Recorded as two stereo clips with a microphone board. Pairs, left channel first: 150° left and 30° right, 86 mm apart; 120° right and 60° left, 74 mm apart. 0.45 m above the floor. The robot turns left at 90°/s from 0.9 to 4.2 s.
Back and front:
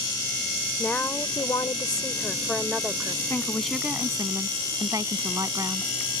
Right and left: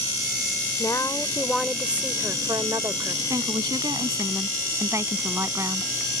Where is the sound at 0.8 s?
140° right; by 3.2 s 10° left.